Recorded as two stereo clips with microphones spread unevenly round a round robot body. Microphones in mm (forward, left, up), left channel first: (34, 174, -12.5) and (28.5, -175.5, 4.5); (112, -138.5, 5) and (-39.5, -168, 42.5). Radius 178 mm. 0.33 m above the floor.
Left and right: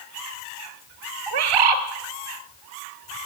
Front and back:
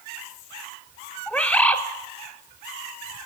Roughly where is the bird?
Right.